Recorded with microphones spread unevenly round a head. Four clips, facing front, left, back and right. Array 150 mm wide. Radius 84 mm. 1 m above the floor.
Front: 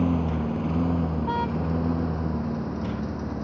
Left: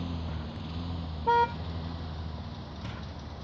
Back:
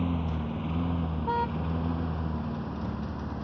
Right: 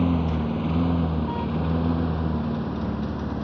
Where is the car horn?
70° left.